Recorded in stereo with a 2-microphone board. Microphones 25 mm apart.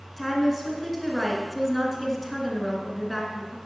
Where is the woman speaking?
5° right (ahead or behind), 1.4 m.